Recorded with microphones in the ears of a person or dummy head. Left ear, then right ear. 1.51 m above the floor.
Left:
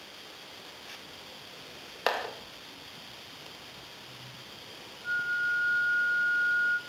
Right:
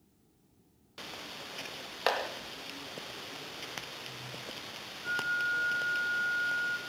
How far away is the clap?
About 2.5 m.